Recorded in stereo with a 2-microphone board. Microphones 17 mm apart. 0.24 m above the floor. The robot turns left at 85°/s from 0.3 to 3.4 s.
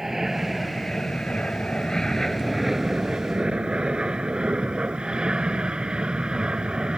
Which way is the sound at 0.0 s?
25° right (ahead or behind).